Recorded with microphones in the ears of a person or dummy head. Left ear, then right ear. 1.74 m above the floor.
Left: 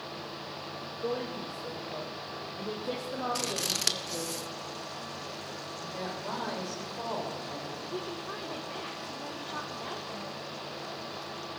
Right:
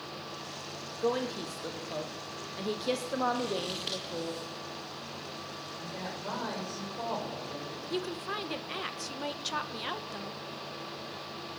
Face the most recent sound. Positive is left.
turn(degrees=-80)